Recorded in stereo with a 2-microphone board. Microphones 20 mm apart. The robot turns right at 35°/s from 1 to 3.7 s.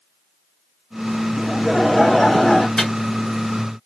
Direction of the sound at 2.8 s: 25° left (ahead or behind).